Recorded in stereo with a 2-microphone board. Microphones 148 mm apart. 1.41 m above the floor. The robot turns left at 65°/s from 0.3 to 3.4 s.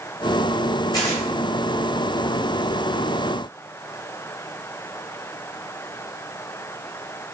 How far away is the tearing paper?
About 1.7 m.